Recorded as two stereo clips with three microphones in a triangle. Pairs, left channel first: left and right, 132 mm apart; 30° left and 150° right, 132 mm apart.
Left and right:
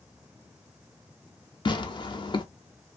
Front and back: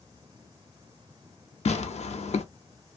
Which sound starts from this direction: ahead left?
Tearing paper, at 1.6 s.